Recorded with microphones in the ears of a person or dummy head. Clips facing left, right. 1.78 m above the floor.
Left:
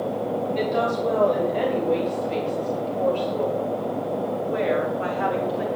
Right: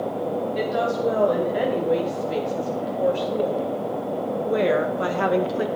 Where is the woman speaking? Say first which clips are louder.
Left 1 dB; 5° right (ahead or behind), 6 m; by 5.7 s 75° right (ahead or behind), 2.5 m.